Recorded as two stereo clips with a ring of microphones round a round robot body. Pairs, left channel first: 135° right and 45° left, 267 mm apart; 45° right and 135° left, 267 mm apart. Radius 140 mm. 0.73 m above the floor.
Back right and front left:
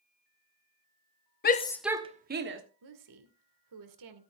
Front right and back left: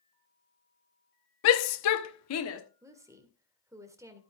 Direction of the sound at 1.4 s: 80° right.